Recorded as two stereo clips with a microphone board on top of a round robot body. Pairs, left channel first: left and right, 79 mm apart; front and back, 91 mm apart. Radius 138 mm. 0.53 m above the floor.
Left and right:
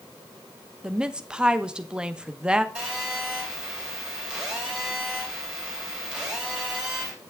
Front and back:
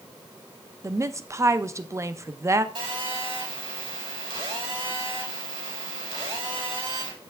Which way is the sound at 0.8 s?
160° right.